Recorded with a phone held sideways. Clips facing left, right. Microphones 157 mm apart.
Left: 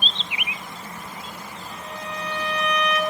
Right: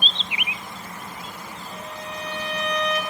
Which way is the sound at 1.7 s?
35° right (ahead or behind).